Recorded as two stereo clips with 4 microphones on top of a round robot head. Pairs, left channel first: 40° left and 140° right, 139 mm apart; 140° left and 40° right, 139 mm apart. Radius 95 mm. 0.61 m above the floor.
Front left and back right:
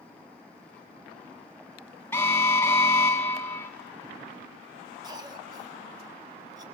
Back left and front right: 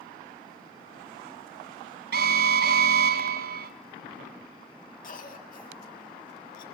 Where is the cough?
160° left, 6.5 m.